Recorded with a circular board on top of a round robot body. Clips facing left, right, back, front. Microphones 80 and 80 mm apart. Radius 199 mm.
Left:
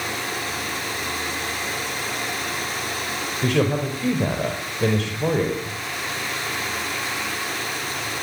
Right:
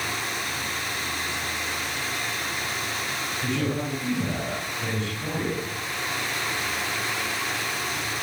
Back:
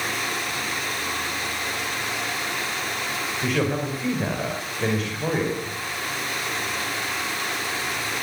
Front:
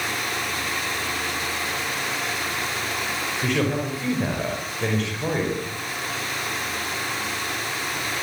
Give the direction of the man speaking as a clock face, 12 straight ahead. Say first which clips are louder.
Left 7 dB, even; 9 o'clock.